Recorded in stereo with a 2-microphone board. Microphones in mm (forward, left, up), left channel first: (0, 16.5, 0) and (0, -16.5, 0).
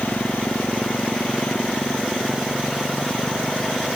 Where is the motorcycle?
75° left (ahead or behind); by 4.0 s 70° left (ahead or behind).